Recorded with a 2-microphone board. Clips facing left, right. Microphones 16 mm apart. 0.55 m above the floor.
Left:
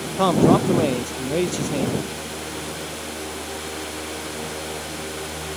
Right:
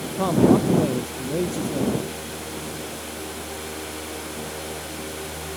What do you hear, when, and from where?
0.2 s a man speaking: 40° left (ahead or behind)